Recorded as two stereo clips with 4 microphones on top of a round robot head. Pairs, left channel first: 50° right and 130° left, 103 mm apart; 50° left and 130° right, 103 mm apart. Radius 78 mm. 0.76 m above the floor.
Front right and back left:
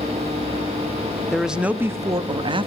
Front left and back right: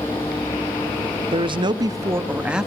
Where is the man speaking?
140° right, 1.2 m; by 2.7 s 150° left, 1.3 m.